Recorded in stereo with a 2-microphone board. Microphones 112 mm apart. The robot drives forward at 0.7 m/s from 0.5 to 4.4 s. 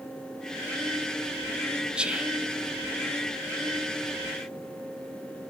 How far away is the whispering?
About 0.9 m.